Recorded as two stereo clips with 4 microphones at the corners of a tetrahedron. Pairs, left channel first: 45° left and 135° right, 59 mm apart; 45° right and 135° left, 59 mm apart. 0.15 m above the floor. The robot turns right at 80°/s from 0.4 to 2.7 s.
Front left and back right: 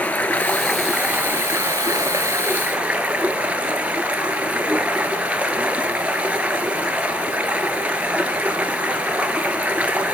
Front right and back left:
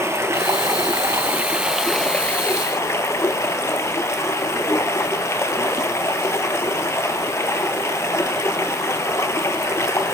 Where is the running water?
105° left, 2 m; by 10.1 s 70° right, 2 m.